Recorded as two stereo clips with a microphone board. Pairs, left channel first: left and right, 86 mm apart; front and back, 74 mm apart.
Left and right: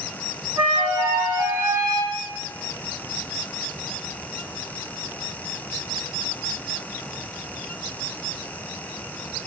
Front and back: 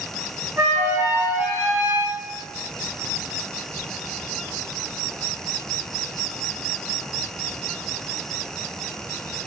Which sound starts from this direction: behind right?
A flute, at 0.6 s.